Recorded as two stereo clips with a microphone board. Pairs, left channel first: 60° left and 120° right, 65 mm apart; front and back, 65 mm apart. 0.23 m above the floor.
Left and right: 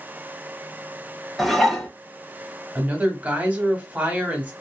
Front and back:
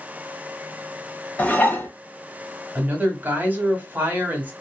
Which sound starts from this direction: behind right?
A woman speaking, at 2.8 s.